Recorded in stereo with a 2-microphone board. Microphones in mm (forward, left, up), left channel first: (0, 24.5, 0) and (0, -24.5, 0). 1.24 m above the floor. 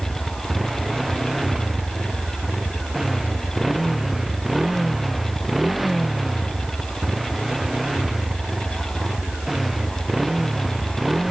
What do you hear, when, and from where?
0.0 s a motorcycle: centre (ahead or behind); by 11.3 s 5° right (ahead or behind)